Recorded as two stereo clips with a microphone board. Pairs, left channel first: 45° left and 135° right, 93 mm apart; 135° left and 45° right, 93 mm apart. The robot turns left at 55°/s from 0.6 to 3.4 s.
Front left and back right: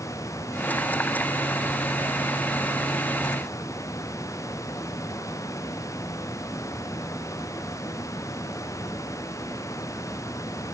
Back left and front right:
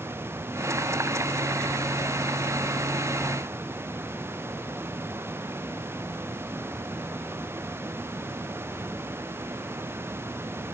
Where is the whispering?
I don't hear whispering.